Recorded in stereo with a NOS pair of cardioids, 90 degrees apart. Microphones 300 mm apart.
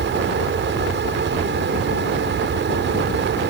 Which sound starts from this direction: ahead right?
A fan, at 0.0 s.